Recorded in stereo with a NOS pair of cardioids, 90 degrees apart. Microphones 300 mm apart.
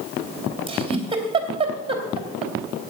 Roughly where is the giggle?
Ahead.